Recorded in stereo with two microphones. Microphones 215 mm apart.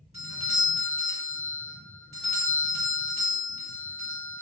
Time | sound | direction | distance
0.1 | a doorbell | 30° right (ahead or behind) | 1.5 m